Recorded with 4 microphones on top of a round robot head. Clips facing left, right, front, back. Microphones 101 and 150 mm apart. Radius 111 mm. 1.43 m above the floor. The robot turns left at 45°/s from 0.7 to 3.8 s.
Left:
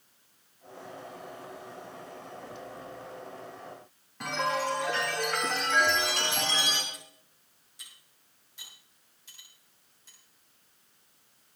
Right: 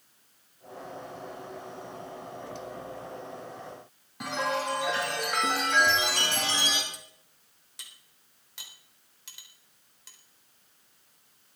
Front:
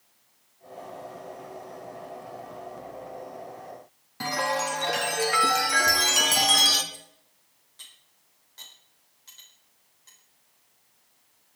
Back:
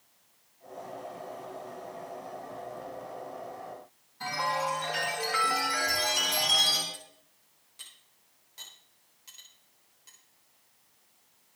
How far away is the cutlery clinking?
About 4 m.